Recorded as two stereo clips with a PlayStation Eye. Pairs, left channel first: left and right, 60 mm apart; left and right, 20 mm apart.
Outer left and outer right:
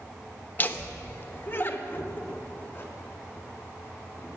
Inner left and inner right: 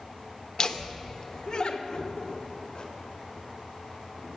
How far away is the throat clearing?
No throat clearing in this recording.